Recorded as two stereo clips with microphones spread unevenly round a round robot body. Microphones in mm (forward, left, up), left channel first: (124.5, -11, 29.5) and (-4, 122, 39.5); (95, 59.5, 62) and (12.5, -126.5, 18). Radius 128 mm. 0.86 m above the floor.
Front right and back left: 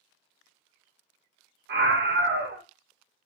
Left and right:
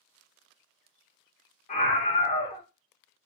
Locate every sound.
1.7 s a scream: 130° left, 0.7 m